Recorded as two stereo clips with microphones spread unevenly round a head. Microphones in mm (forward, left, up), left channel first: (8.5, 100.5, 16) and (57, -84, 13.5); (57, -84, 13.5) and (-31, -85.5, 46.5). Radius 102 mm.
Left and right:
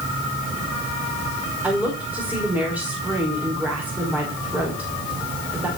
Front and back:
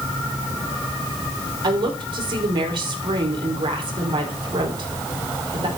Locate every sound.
1.6 s a woman speaking: 160° right, 5 m